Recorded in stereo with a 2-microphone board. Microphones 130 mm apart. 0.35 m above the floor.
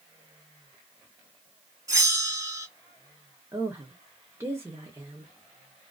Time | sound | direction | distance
1.9 | a bell | 25° right (ahead or behind) | 1.5 m
3.5 | a woman speaking | 20° right (ahead or behind) | 0.9 m